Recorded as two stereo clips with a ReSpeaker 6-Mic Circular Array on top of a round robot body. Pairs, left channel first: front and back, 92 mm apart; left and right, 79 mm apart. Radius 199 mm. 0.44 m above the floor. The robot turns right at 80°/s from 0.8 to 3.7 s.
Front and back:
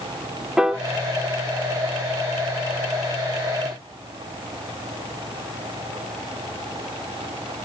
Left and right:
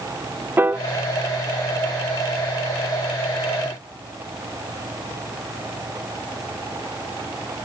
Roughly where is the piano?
Right.